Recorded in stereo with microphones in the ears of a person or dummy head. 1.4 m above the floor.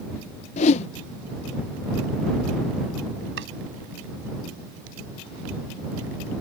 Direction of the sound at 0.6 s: 40° left (ahead or behind).